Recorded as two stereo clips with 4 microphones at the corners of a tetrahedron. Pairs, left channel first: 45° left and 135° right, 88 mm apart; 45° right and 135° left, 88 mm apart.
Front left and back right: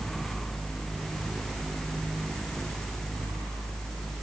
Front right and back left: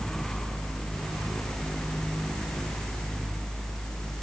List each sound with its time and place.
Only background noise.